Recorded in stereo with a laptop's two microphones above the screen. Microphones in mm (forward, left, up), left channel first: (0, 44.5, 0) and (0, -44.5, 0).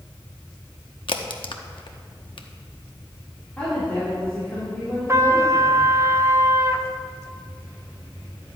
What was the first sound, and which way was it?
A crack, 65° left (ahead or behind).